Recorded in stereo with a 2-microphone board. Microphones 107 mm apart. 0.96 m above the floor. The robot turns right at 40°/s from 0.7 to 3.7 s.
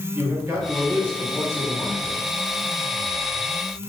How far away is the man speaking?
About 1.0 m.